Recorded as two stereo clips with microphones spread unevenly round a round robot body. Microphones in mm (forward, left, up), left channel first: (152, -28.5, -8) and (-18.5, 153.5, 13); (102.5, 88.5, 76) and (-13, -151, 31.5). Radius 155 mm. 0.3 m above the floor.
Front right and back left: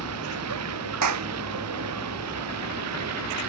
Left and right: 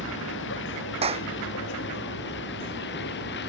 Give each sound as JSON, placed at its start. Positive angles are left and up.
{"t": 0.0, "sound": "a vehicle", "azimuth_deg": 120}
{"t": 1.0, "sound": "a clap", "azimuth_deg": 175}